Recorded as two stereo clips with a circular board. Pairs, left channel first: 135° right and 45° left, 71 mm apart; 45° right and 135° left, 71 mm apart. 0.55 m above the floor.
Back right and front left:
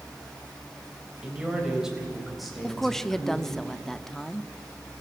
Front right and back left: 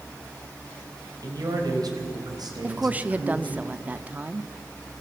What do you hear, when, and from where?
1.2 s a man speaking: 120° left, 3.5 m; by 3.6 s 145° left, 4.5 m
2.6 s a woman speaking: 145° left, 0.6 m